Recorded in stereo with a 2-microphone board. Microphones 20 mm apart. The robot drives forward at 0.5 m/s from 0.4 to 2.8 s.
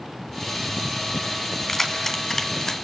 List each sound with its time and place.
1.7 s keys jangling: 25° left (ahead or behind), 2 m; by 2.8 s 30° left (ahead or behind), 1.6 m